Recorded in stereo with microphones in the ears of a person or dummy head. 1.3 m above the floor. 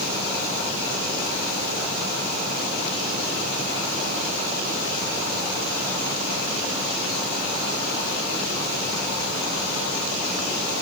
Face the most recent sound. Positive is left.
No sound to turn to.